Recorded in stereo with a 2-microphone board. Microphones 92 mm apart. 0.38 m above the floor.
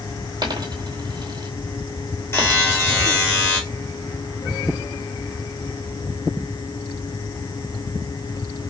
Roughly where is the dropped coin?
Right.